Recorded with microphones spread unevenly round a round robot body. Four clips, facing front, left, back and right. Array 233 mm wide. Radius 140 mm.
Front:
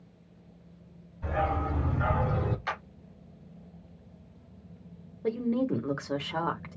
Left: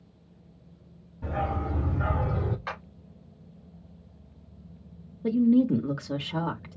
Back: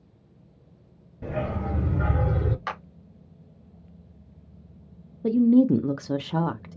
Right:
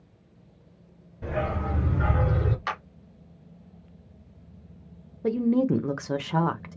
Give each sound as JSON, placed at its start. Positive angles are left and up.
{"t": 1.2, "sound": "a dog barking", "azimuth_deg": -155, "distance_m": 3.5}
{"t": 2.7, "sound": "a clap", "azimuth_deg": -145, "distance_m": 3.5}
{"t": 5.2, "sound": "a woman speaking", "azimuth_deg": -100, "distance_m": 0.8}